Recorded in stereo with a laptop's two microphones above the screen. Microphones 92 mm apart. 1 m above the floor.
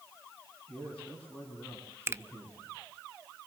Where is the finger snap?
25° right (ahead or behind), 0.6 m.